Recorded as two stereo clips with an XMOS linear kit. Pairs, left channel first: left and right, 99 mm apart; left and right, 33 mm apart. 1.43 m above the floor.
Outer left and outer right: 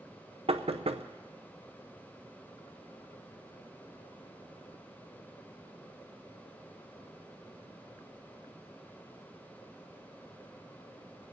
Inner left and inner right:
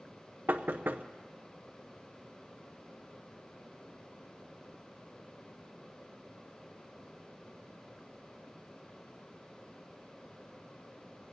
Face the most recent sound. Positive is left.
turn(degrees=-80)